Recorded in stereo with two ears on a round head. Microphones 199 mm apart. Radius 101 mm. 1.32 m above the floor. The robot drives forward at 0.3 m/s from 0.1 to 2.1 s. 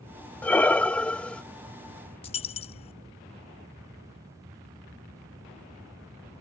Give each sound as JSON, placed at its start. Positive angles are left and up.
{"t": 0.4, "sound": "breathing", "side_deg": 5}
{"t": 2.2, "sound": "a dropped coin", "side_deg": 25}